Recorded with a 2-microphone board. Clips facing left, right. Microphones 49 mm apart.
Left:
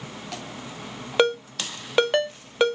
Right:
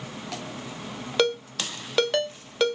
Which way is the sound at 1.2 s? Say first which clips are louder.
Left 3 dB; 20° left (ahead or behind).